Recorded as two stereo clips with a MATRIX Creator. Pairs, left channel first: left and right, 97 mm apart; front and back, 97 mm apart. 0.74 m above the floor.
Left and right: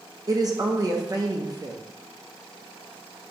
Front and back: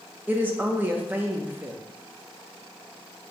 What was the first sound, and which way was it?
A woman speaking, 115° right.